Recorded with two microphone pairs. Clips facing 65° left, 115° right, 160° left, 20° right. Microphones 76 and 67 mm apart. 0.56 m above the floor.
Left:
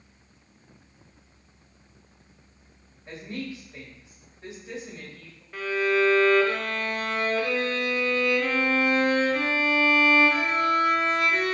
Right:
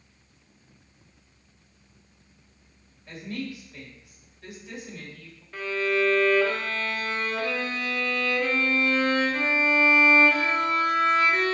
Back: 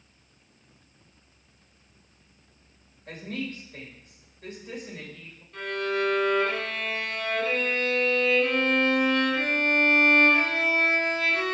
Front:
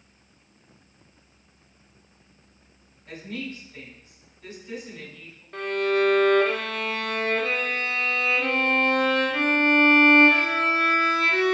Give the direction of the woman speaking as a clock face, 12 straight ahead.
8 o'clock.